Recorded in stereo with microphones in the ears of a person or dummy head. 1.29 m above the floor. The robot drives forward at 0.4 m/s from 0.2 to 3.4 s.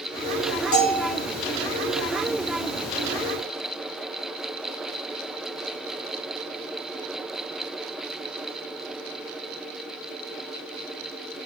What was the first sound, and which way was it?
A bell, 70° left (ahead or behind).